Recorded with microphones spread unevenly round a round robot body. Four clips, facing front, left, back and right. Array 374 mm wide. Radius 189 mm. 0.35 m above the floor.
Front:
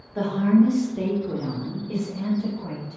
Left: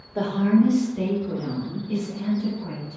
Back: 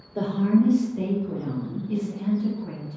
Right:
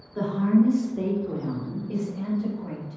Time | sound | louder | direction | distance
0.1 | a woman speaking | left 2 dB, front 2 dB | 155° left | 1.0 m